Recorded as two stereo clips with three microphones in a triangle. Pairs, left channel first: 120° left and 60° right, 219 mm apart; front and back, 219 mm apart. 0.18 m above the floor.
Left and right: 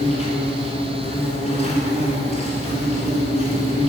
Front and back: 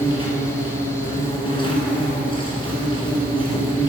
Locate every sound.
0.0 s an insect: 65° left, 2 m